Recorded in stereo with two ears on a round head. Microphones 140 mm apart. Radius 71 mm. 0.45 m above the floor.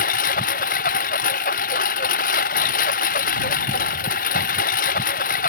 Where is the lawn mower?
55° left (ahead or behind).